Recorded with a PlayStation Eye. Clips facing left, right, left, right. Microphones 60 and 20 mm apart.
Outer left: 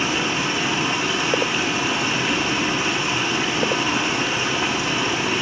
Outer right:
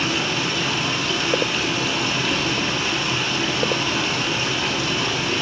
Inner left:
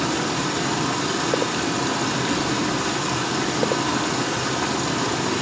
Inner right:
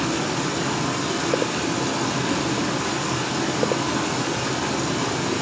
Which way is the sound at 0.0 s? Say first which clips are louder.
Outer left 1 dB, inner left 1 dB; 15° left (ahead or behind).